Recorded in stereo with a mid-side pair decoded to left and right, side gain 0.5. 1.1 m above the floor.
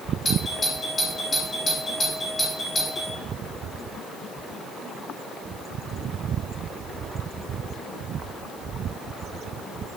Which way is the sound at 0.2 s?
30° left.